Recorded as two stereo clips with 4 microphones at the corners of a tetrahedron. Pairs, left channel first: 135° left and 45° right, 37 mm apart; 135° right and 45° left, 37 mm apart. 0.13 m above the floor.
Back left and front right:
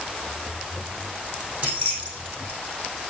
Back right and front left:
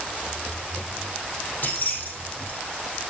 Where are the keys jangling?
95° right, 4 m.